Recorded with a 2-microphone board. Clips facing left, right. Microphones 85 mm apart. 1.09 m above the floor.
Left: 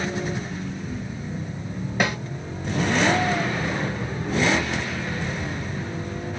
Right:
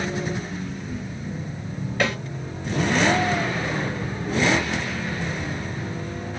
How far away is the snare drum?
About 2 m.